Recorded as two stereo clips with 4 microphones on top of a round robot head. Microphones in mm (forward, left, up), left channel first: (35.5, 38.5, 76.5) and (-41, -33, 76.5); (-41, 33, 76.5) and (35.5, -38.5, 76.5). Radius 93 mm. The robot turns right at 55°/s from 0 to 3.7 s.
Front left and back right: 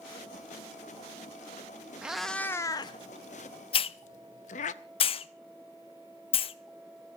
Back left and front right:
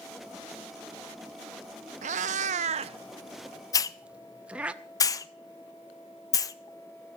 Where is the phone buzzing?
No phone buzzing in this recording.